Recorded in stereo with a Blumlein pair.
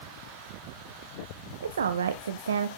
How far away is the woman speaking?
About 0.5 m.